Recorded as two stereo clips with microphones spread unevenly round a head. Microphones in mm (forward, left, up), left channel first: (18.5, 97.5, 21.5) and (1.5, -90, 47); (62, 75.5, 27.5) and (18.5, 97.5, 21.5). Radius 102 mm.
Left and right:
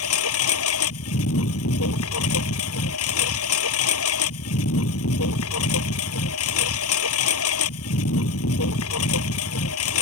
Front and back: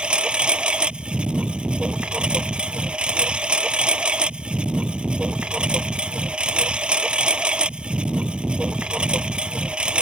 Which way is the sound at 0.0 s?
85° left.